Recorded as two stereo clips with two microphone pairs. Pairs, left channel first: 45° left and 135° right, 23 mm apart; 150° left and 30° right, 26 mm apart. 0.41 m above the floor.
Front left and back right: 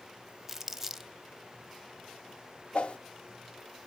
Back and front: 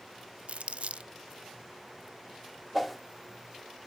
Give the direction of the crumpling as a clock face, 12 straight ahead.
2 o'clock.